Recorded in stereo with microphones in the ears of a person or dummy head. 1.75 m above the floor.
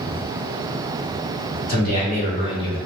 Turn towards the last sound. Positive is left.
turn(degrees=25)  # may be behind; listen again after turning